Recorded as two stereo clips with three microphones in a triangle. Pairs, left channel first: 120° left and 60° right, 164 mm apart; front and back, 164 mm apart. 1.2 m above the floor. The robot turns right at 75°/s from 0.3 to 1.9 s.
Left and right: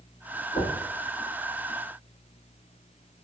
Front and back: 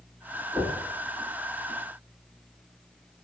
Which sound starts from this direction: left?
Knocking, at 0.5 s.